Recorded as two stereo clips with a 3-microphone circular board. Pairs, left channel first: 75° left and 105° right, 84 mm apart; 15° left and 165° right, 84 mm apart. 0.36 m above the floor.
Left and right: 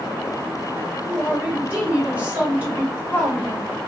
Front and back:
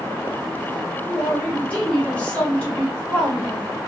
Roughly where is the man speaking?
Ahead right.